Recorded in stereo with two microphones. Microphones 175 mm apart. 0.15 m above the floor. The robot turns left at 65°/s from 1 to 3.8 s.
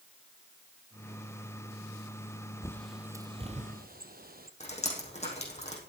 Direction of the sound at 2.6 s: 20° left (ahead or behind).